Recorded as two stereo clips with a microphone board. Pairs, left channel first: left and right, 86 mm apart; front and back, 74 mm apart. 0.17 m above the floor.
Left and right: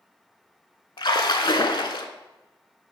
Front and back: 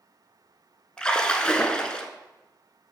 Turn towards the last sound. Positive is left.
turn(degrees=75)